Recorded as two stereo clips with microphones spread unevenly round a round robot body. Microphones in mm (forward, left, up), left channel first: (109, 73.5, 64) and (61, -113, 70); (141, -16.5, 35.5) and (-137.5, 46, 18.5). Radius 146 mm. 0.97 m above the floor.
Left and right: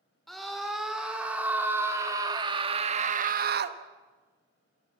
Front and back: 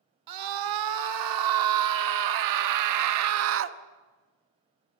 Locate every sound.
0.3 s a scream: 165° left, 3 m; by 3.8 s 140° right, 1.1 m